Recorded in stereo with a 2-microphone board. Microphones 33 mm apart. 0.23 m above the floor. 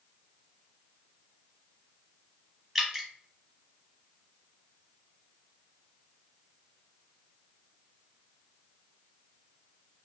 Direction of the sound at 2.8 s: Centre (ahead or behind).